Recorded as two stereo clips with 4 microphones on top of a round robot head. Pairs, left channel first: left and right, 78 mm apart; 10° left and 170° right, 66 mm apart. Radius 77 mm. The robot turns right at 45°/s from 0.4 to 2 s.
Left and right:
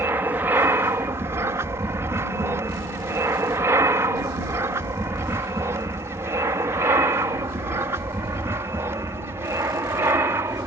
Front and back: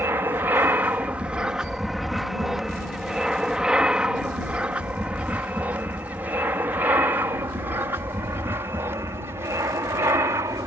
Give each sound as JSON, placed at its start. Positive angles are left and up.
{"t": 0.0, "sound": "an aircraft", "azimuth_deg": -135}